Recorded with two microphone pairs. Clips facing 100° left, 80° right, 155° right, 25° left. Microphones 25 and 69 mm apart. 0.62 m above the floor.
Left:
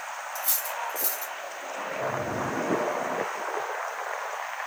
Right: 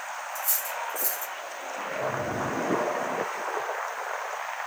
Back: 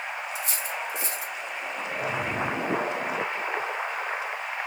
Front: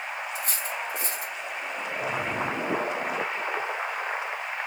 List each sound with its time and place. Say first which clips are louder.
0.3 s cutlery clinking: left 1 dB, even; 65° left, 0.8 m